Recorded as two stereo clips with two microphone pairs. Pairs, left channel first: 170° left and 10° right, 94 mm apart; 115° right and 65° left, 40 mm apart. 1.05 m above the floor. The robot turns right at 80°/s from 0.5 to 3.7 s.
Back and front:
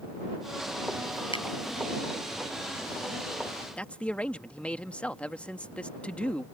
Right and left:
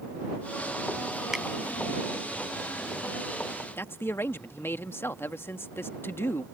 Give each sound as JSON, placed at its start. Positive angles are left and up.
{"t": 1.3, "sound": "a finger snap", "azimuth_deg": 145}
{"t": 3.8, "sound": "a man speaking", "azimuth_deg": -115}